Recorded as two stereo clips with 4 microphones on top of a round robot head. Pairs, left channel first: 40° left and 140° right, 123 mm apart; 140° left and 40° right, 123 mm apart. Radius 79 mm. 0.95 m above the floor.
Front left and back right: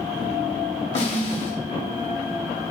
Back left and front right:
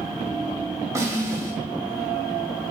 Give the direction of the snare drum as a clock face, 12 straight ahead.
11 o'clock.